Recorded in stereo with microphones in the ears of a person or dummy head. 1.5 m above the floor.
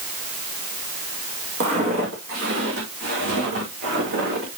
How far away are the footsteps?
About 2.5 m.